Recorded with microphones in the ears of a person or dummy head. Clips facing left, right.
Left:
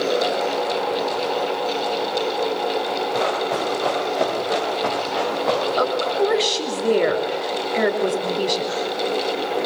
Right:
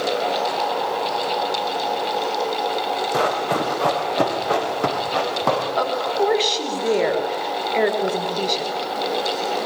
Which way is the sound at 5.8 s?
5° left (ahead or behind).